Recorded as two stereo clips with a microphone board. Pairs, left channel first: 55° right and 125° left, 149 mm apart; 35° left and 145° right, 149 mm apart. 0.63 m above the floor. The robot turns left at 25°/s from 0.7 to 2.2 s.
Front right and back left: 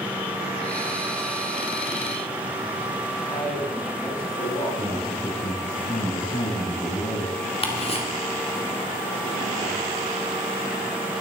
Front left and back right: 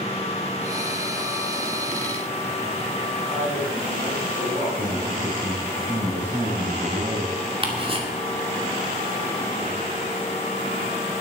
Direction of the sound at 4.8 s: 80° right.